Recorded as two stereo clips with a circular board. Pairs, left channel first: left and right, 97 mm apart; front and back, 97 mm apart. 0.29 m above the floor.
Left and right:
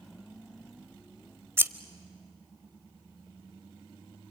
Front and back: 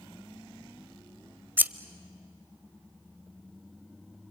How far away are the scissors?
About 0.6 m.